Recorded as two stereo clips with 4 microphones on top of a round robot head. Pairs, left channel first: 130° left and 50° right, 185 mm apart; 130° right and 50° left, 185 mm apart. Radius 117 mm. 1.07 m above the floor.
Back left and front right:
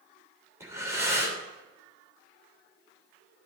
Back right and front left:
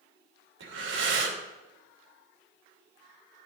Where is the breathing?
25° left, 3 m.